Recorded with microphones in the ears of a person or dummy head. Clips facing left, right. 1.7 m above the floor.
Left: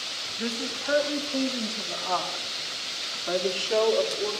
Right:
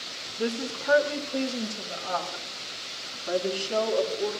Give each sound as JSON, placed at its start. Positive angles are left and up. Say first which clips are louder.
{"t": 0.4, "sound": "a woman speaking", "louder": "right 3 dB", "side_deg": -65, "distance_m": 1.0}